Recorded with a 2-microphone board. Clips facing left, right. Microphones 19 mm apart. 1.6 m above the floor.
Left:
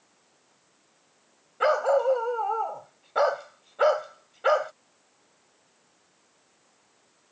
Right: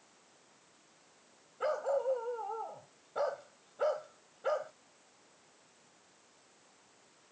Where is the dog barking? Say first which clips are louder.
Left 11 dB; 50° left (ahead or behind).